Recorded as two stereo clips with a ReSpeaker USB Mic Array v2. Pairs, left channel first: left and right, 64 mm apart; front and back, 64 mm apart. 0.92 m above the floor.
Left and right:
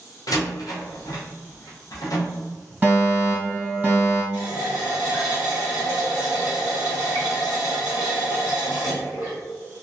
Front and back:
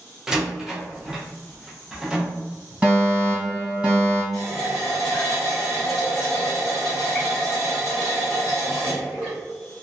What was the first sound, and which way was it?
A door slam, 100° left.